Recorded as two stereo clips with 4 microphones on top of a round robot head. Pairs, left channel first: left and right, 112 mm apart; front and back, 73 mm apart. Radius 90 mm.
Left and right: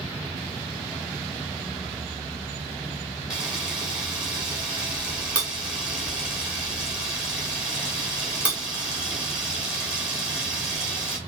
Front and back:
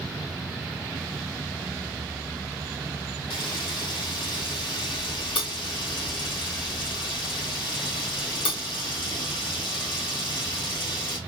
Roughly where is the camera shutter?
Ahead.